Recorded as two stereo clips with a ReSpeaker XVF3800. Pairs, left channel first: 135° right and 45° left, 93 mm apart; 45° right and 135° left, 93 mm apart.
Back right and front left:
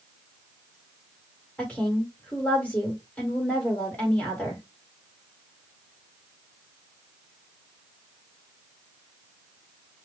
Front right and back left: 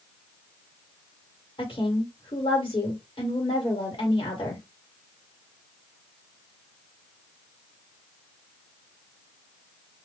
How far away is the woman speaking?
About 1.5 m.